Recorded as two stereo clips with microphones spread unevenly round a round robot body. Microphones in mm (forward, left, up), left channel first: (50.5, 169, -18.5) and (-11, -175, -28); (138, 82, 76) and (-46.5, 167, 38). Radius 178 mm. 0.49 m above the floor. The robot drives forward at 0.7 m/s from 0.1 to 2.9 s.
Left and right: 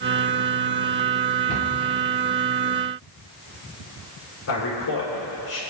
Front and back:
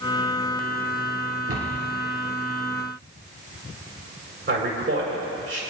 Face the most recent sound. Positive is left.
turn(degrees=130)